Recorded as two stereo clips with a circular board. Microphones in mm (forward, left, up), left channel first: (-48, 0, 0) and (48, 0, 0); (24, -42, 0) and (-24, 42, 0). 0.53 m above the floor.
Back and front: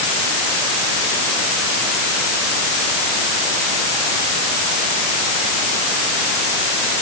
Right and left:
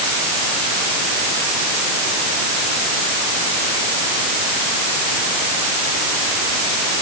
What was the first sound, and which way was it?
Only background noise.